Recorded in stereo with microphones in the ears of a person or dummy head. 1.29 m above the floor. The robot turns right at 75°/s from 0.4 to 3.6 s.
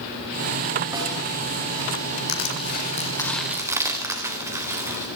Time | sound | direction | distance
0.9 | a snare drum | 20° right (ahead or behind) | 9 m
2.3 | crushing | 95° left | 4 m